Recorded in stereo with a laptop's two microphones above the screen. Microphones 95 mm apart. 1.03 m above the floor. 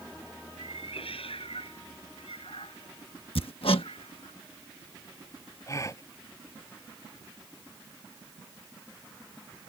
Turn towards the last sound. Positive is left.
turn(degrees=35)  # may be behind; listen again after turning